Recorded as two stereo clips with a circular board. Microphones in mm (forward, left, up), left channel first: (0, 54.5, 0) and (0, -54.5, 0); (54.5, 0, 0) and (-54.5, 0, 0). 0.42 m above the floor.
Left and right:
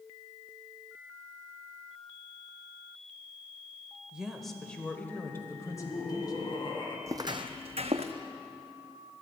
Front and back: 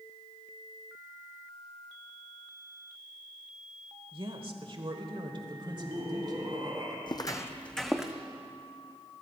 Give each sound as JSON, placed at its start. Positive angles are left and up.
{"t": 4.1, "sound": "a woman speaking", "azimuth_deg": -170, "distance_m": 1.3}
{"t": 5.5, "sound": "laughter", "azimuth_deg": 130, "distance_m": 4.0}
{"t": 7.1, "sound": "footsteps", "azimuth_deg": -35, "distance_m": 0.7}